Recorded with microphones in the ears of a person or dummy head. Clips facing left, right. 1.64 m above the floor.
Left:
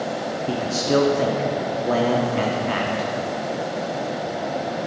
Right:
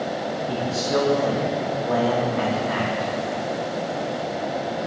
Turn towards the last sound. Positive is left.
turn(degrees=35)  # may be behind; listen again after turning